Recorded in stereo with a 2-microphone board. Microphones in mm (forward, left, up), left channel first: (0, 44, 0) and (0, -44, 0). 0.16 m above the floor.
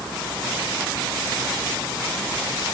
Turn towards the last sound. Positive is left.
No sound to turn to.